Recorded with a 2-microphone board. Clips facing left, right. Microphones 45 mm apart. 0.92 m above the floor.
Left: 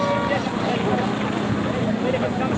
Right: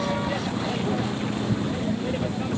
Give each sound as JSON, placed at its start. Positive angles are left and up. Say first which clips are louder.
{"t": 0.0, "sound": "a vehicle", "louder": "left 5 dB", "side_deg": 30}